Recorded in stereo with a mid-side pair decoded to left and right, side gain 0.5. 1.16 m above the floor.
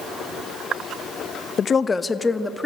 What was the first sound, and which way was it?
A woman speaking, 45° left.